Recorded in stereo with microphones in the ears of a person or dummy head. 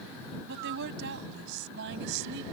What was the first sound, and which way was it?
A woman speaking, 55° right (ahead or behind).